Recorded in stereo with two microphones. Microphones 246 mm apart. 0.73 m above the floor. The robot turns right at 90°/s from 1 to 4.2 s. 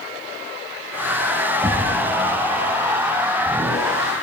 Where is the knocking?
5° left, 3.5 m; by 2.0 s 35° left, 3.5 m.